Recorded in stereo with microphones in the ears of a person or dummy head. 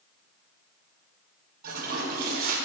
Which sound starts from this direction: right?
A toilet flushing, at 1.6 s.